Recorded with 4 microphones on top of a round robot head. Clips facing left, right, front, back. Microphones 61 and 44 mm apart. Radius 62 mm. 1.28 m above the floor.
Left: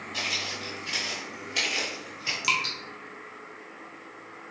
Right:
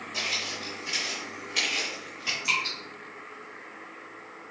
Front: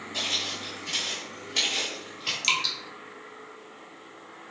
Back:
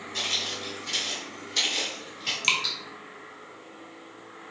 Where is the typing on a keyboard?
I don't hear typing on a keyboard.